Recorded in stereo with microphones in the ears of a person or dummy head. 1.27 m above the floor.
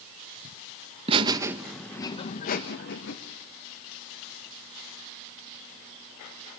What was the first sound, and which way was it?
Laughter, 30° right (ahead or behind).